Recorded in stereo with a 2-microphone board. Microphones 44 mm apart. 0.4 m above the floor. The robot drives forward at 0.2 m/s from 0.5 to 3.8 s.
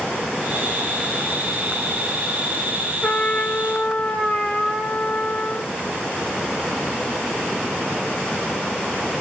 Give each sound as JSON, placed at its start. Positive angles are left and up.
{"t": 3.0, "sound": "a trumpet", "side_deg": 30, "distance_m": 1.1}